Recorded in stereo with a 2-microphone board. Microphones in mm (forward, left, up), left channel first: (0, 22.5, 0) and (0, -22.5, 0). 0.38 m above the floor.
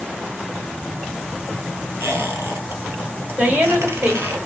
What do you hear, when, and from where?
2.0 s a squeak: 75° right (ahead or behind), 1.6 m
3.4 s a woman speaking: 45° right (ahead or behind), 1.7 m